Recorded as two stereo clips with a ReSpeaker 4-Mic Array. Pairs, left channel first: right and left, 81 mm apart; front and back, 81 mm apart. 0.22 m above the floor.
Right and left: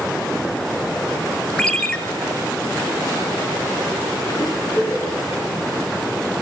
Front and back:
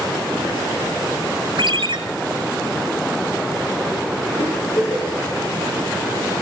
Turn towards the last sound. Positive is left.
turn(degrees=-25)